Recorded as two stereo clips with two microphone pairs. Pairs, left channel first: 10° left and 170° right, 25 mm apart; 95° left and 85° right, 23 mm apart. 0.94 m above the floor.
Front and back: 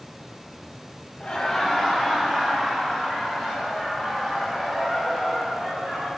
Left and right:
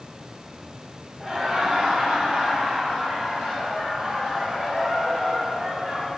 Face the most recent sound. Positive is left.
turn(degrees=-100)